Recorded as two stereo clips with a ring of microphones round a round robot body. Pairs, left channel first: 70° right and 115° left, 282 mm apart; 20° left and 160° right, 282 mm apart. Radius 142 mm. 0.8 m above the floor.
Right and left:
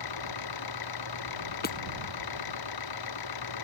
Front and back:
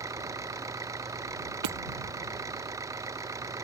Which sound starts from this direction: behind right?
Hammering, at 1.6 s.